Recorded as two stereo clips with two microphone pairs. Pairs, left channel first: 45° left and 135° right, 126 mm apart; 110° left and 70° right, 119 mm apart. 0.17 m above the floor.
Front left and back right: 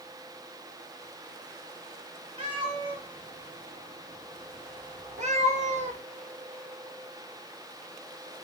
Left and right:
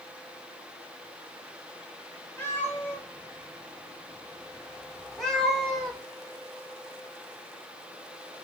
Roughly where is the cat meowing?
Behind.